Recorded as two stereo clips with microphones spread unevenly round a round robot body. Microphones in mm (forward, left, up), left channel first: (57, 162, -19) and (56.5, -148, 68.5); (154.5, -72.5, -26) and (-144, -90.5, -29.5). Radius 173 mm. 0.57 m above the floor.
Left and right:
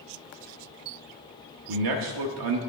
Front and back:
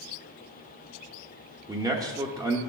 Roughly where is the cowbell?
No cowbell in this recording.